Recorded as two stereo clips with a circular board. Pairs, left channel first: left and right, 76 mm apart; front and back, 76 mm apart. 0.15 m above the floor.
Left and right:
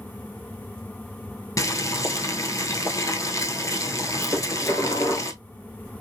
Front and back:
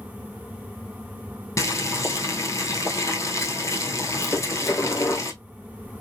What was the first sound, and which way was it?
Boiling, 50° left.